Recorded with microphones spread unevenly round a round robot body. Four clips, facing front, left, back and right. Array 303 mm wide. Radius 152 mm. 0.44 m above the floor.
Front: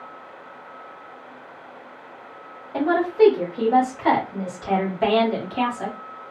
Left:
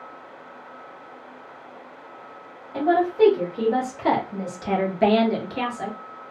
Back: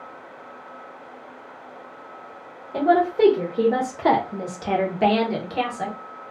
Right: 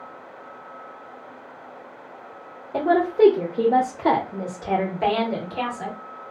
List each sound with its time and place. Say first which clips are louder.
2.7 s a woman speaking: right 1 dB, even; 115° right, 1.2 m; by 6.0 s 125° left, 1.2 m